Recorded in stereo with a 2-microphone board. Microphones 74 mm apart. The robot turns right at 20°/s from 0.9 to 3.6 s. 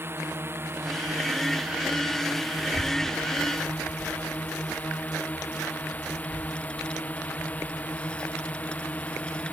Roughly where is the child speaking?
Centre.